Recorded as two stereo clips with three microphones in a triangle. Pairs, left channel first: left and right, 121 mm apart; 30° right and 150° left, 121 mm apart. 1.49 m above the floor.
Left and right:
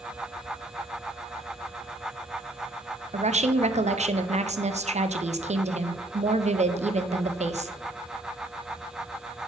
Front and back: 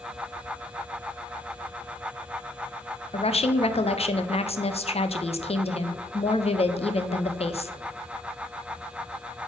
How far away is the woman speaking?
About 0.6 m.